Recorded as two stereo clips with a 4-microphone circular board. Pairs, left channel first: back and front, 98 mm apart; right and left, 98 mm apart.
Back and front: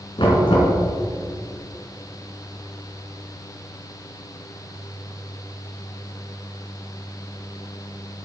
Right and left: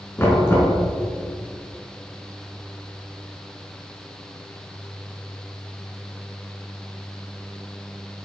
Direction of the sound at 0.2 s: 155° right.